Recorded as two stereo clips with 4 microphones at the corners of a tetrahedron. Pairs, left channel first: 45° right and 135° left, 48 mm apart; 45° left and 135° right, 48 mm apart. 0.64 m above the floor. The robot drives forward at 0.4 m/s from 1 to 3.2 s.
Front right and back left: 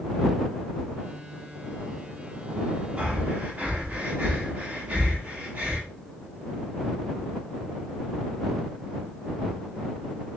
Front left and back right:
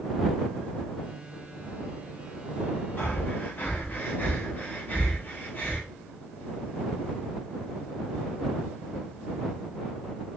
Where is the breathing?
80° left, 1.1 m; by 5.8 s 85° left, 1.0 m.